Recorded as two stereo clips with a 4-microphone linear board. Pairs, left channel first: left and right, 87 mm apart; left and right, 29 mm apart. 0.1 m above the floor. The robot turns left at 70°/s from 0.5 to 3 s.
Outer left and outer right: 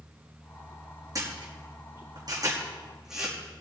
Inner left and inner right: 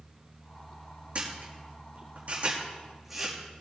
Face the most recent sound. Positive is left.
turn(degrees=-5)  # may be behind; listen again after turning